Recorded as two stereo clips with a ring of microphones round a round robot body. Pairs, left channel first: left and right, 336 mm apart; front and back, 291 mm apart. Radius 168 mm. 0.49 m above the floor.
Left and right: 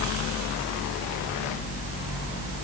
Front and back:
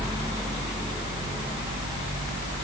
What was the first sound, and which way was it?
Only background noise.